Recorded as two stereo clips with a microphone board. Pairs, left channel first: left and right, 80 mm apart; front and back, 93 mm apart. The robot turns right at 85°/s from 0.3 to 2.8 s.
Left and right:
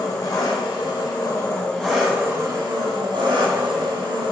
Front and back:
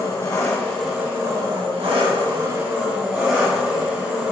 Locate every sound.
0.0 s an engine running: 50° left, 1.3 m; by 4.3 s 100° right, 1.3 m